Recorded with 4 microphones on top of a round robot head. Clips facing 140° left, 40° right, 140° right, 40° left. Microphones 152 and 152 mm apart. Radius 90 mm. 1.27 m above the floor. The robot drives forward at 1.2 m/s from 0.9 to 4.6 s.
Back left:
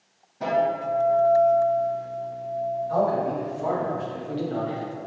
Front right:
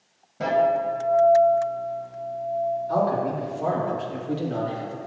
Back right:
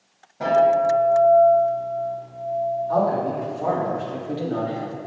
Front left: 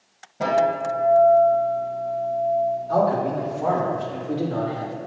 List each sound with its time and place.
0.4 s a guitar: 25° right, 2.5 m; by 2.8 s 85° right, 1.3 m
2.9 s a man speaking: 40° right, 2.5 m; by 5.0 s 90° right, 1.8 m